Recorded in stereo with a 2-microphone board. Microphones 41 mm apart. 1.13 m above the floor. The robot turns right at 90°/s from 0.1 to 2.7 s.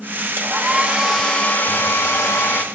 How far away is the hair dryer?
About 1.2 m.